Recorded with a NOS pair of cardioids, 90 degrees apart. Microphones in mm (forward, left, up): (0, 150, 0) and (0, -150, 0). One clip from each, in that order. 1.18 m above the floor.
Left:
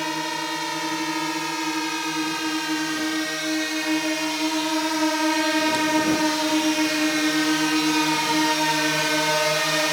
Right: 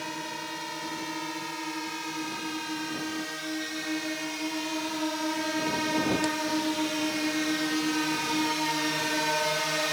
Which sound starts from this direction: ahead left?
A drone, at 0.0 s.